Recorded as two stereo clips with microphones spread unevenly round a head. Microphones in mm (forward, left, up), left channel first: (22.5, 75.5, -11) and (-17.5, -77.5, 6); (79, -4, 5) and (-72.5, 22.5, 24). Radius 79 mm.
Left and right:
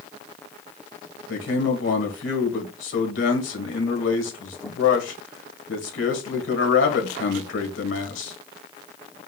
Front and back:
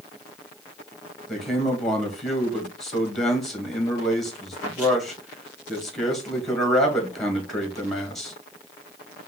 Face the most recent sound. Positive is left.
turn(degrees=80)